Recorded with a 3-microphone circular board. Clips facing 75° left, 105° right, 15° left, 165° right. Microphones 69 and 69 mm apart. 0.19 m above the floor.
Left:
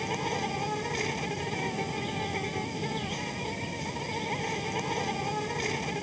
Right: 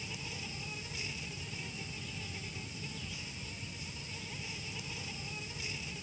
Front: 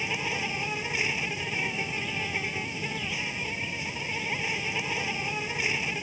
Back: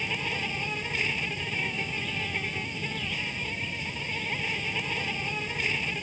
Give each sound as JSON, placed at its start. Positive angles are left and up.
{"t": 0.0, "sound": "an insect", "azimuth_deg": 95}